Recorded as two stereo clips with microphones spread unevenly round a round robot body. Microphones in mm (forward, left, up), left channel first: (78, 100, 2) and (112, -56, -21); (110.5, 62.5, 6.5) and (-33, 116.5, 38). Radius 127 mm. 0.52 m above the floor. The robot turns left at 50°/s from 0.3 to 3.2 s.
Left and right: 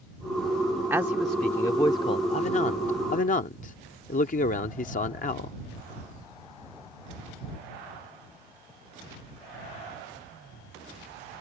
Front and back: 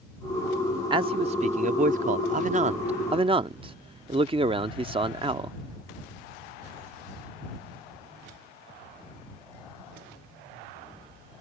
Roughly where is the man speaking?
Behind right.